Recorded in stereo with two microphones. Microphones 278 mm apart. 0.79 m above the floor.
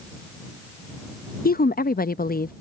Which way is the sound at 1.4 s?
35° left (ahead or behind).